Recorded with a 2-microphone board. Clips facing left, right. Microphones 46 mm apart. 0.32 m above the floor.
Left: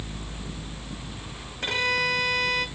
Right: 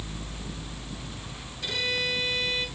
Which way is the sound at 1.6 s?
50° left (ahead or behind).